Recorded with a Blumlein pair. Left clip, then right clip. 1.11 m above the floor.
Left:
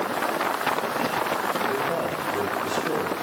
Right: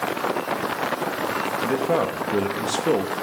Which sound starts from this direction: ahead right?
A man speaking, at 1.6 s.